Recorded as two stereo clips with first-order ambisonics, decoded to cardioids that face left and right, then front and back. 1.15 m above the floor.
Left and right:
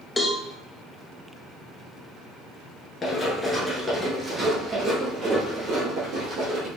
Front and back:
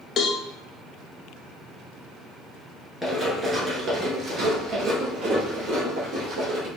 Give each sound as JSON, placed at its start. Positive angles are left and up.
{"t": 0.2, "sound": "a cowbell", "azimuth_deg": 25, "distance_m": 0.6}
{"t": 3.0, "sound": "running footsteps", "azimuth_deg": 90, "distance_m": 1.1}